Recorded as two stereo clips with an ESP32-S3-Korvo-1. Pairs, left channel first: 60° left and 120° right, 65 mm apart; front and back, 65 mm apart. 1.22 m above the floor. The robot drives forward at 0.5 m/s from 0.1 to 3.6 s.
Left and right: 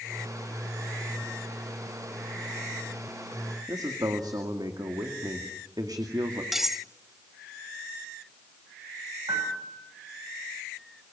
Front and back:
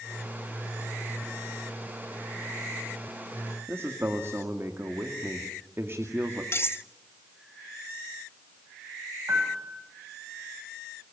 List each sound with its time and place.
3.7 s a man speaking: 130° right, 2 m
6.5 s cutlery clinking: 35° right, 0.8 m
9.3 s a piano: 125° right, 7.5 m